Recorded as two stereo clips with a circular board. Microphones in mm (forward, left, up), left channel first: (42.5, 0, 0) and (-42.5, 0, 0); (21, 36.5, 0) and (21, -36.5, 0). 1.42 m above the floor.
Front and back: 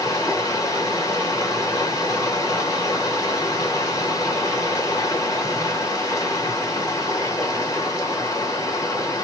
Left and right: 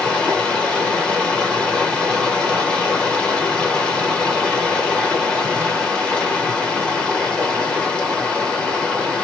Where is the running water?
20° left, 1.4 m.